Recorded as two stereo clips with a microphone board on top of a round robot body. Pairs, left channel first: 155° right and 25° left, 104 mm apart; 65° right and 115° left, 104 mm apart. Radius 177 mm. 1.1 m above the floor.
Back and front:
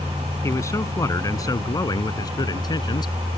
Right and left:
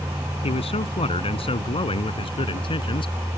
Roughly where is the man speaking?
Right.